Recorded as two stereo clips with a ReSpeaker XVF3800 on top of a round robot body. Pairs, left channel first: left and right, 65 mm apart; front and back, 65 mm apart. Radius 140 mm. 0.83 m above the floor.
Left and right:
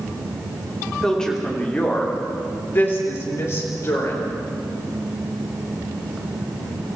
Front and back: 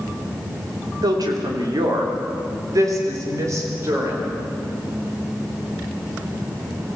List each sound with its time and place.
1.0 s a woman speaking: 175° left, 3.5 m; by 4.3 s 130° left, 4.5 m